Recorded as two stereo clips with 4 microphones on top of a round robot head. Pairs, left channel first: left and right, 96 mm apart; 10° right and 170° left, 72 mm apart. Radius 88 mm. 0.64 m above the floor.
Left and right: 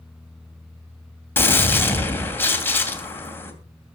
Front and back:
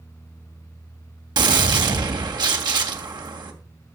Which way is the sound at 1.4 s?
160° left.